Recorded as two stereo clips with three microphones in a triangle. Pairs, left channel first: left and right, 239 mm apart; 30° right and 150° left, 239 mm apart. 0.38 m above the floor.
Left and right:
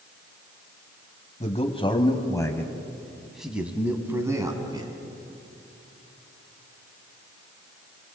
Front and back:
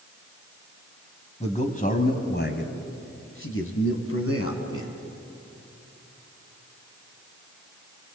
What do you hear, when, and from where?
1.4 s a man speaking: 30° left, 2 m; by 4.9 s 15° right, 3 m